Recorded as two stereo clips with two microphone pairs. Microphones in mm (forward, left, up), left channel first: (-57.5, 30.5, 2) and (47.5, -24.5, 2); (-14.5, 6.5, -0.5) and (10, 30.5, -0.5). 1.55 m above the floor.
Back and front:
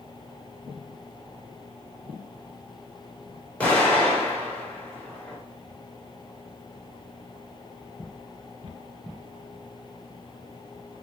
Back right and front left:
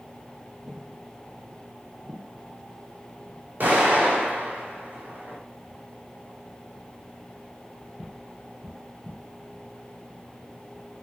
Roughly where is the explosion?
Left.